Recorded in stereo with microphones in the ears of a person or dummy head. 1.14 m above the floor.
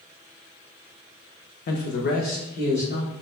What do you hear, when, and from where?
1.7 s a man speaking: 45° left (ahead or behind), 0.5 m; by 3.1 s 50° left (ahead or behind), 1.7 m